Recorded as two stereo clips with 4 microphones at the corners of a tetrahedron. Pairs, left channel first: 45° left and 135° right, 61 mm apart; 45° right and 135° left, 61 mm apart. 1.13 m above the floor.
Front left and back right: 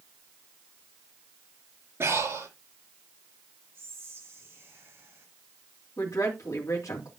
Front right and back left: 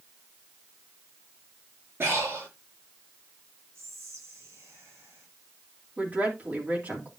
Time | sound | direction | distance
2.0 | breathing | 175° right | 5.5 m
3.8 | whispering | 175° left | 4 m
6.0 | a woman speaking | 75° left | 3 m